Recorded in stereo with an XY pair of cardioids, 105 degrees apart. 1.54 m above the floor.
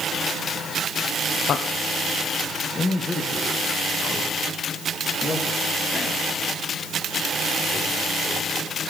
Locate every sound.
1.5 s a man speaking: 60° left, 0.9 m; by 8.7 s 15° left, 6 m